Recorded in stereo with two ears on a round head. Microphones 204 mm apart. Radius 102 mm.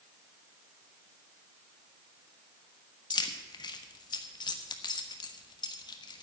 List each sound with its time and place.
3.1 s keys jangling: 20° left (ahead or behind), 1.1 m